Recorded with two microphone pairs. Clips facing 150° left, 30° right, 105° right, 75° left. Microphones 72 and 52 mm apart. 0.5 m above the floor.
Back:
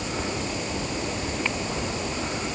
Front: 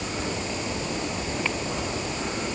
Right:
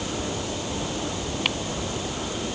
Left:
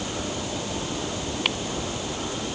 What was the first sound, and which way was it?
Only background noise.